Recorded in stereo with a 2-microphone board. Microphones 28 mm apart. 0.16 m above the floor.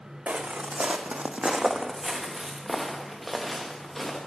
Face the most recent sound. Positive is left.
turn(degrees=10)  # may be behind; listen again after turning